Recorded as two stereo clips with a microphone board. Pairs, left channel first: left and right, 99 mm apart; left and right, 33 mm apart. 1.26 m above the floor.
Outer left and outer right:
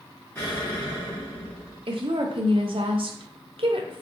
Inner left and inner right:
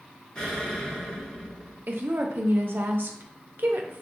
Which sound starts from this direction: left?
An explosion, at 0.3 s.